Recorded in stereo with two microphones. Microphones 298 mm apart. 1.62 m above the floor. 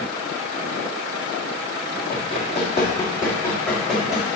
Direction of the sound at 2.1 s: 30° left (ahead or behind).